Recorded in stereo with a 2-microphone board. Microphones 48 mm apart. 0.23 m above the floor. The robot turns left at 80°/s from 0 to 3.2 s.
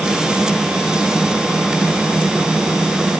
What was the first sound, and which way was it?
Only background noise.